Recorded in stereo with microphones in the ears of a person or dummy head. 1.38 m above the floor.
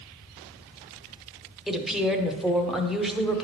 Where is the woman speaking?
Centre (ahead or behind), 0.9 m.